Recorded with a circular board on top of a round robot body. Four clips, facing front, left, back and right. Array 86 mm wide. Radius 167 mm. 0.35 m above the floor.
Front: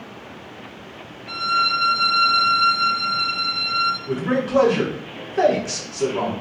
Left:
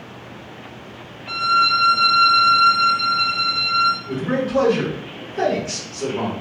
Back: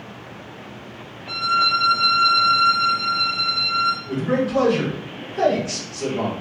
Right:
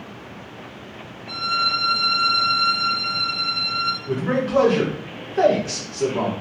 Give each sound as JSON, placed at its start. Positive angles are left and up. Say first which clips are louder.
{"t": 1.3, "sound": "a violin", "louder": "left 6 dB, back 1 dB", "azimuth_deg": 90, "distance_m": 1.1}
{"t": 4.1, "sound": "a man speaking", "louder": "even, even", "azimuth_deg": -45, "distance_m": 2.0}